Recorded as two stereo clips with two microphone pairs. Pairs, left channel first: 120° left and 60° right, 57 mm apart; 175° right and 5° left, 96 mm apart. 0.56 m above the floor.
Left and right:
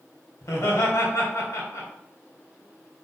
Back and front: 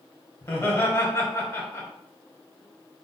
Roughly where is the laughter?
Behind left.